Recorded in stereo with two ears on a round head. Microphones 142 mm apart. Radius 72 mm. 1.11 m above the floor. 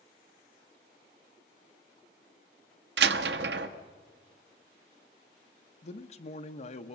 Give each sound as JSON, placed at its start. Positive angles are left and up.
{"t": 3.0, "sound": "a door slam", "side_deg": -80, "distance_m": 1.1}
{"t": 5.8, "sound": "a man speaking", "side_deg": 45, "distance_m": 1.2}